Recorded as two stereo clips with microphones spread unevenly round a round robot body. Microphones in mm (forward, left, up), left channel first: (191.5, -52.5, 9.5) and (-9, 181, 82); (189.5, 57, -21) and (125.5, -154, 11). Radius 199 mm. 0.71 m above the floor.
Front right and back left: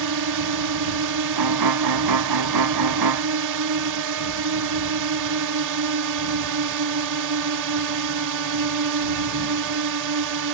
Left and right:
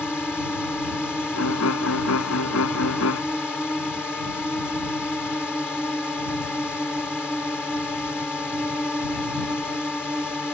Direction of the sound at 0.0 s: 160° left.